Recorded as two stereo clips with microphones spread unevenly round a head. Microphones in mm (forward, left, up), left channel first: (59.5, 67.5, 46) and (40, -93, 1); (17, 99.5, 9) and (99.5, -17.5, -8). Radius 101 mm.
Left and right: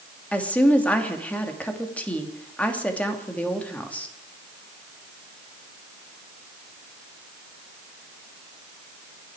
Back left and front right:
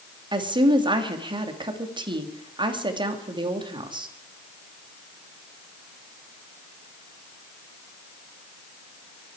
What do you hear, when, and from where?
0.3 s a woman speaking: 5° left, 2.5 m